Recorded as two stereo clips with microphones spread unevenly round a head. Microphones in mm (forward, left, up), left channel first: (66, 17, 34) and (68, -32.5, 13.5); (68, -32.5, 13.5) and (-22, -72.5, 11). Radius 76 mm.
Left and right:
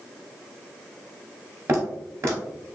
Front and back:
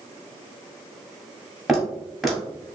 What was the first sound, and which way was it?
Footsteps, 65° right.